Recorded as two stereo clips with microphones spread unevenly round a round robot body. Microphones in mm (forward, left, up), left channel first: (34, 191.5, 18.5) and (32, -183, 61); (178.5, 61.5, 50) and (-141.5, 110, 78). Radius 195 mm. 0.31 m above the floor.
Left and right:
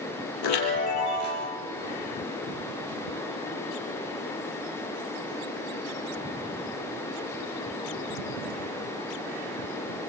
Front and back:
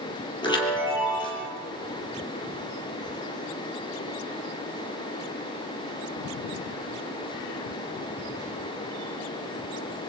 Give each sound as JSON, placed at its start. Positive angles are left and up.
{"t": 0.4, "sound": "a chime", "azimuth_deg": 70, "distance_m": 5.5}